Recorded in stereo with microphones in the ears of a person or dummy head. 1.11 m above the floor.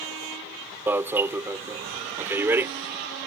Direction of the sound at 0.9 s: 10° right (ahead or behind).